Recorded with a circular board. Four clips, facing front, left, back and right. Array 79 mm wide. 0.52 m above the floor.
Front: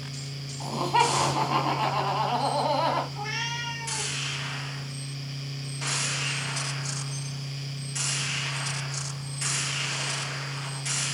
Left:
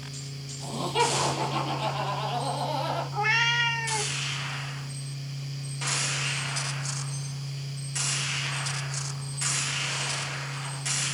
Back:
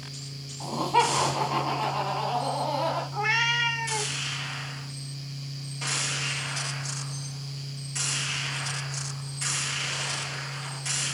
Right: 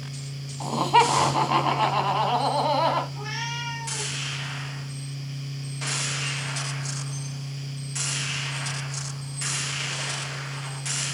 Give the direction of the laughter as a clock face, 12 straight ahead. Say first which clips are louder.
Right 7 dB, even; 3 o'clock.